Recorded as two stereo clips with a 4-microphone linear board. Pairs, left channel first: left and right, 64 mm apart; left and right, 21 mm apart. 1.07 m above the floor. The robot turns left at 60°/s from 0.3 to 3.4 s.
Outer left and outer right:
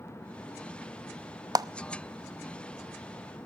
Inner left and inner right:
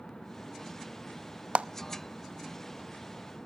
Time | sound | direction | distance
1.6 | a clap | 80° right | 0.8 m